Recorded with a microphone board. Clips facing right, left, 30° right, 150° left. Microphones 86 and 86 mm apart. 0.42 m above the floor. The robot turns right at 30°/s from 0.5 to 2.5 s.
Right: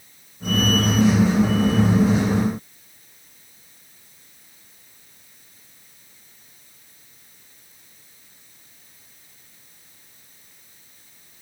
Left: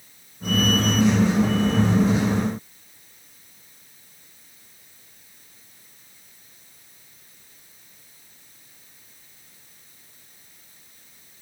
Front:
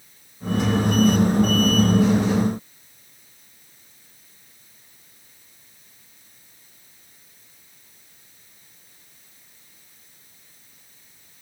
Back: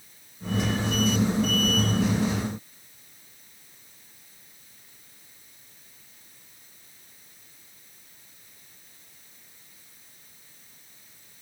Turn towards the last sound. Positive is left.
No sound to turn to.